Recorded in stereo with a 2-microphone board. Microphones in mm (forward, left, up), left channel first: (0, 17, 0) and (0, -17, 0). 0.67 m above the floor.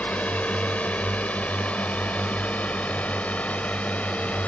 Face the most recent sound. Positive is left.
turn(degrees=40)  # may be behind; listen again after turning